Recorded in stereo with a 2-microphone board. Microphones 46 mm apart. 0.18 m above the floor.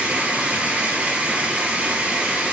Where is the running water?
30° right (ahead or behind), 2.5 m.